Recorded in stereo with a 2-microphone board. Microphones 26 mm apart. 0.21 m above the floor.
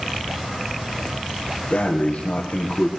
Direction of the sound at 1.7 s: 85° left.